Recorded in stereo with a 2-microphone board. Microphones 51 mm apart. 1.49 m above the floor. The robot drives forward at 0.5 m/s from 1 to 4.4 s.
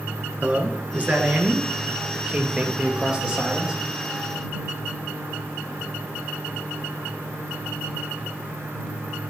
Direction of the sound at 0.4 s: 30° right (ahead or behind).